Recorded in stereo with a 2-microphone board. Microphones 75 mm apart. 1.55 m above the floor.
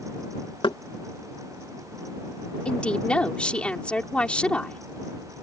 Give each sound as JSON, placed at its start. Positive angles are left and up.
{"t": 0.6, "sound": "knocking", "side_deg": 85}
{"t": 2.6, "sound": "a woman speaking", "side_deg": 10}